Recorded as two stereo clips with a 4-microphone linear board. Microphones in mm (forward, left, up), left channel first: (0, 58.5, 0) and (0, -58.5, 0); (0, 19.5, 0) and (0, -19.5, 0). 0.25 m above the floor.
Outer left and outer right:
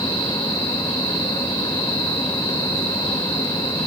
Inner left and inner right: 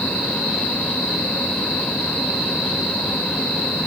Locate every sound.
Only background noise.